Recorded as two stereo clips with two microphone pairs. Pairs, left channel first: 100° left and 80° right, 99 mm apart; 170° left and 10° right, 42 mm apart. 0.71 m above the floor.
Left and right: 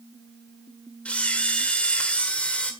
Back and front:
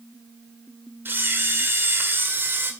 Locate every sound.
1.1 s a camera shutter: 20° left, 1.7 m